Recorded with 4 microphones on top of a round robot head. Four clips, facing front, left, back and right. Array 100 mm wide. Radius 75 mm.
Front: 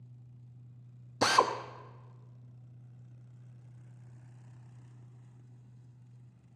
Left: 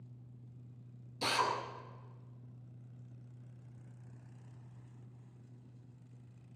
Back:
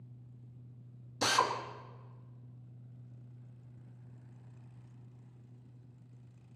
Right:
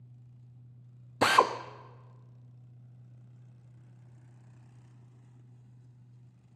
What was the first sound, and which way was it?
A drill, 65° right.